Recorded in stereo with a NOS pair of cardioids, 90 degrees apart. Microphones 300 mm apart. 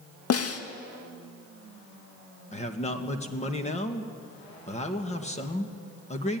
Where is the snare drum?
50° left, 1.9 m.